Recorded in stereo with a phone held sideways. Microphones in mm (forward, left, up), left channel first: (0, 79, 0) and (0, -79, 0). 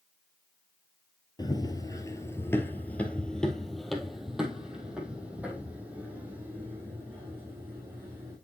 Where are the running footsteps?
25° left (ahead or behind), 1.3 m; by 8.4 s 15° right (ahead or behind), 4.5 m.